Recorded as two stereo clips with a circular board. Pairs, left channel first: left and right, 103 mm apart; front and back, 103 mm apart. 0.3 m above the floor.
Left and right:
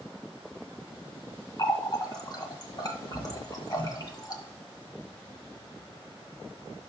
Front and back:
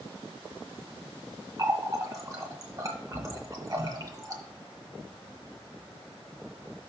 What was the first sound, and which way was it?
A running tap, 130° left.